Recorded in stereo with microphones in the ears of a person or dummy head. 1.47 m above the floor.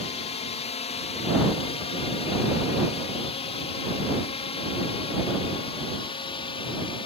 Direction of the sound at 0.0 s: 40° left (ahead or behind).